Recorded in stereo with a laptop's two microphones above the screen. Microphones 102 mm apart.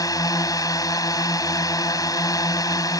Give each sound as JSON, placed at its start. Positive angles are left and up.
{"t": 0.0, "sound": "a drone", "side_deg": 35}